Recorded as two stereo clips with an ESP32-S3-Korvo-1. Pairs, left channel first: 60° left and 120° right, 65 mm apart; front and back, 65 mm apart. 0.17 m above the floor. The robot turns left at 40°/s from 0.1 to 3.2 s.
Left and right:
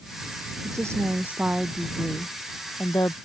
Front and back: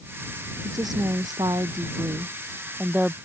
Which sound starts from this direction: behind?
A woman speaking, at 0.6 s.